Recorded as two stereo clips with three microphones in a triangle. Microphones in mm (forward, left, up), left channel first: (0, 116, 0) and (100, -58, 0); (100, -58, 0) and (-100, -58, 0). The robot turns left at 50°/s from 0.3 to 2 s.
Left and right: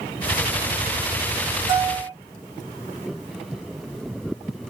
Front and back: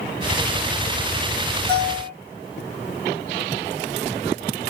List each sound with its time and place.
1.7 s a bell: 110° right, 1.8 m; by 2.1 s 125° right, 1.8 m